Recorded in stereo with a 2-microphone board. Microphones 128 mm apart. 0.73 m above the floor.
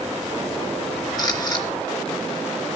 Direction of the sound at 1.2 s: 30° left (ahead or behind).